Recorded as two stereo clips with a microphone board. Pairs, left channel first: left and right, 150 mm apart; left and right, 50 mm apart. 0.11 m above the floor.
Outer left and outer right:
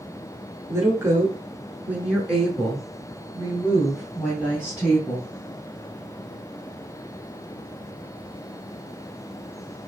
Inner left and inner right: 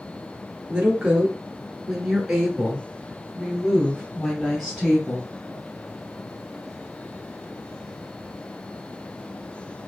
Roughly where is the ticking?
I don't hear ticking.